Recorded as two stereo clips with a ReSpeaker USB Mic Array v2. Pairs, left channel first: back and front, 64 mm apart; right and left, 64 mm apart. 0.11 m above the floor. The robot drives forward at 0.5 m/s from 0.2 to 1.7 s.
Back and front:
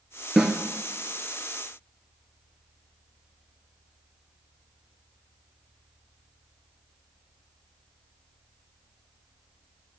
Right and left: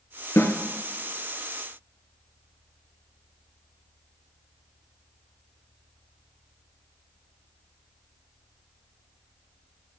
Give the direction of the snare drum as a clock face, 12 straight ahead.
3 o'clock.